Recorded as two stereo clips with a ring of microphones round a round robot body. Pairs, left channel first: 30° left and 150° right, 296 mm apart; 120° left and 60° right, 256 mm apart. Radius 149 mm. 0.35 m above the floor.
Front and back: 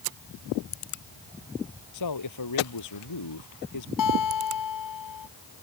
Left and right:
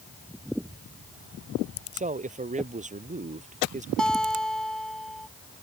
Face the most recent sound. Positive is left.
turn(degrees=35)